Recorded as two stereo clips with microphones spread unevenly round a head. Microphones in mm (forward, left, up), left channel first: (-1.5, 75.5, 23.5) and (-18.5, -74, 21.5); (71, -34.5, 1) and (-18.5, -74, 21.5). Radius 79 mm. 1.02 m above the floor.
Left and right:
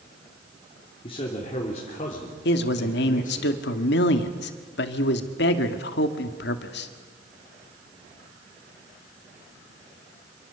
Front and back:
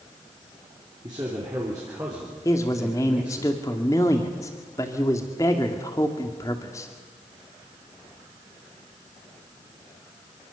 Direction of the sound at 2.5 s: 95° left.